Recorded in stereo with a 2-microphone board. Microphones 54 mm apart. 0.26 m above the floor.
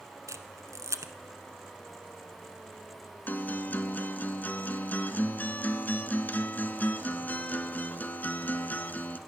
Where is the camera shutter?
70° right (ahead or behind), 1.2 m.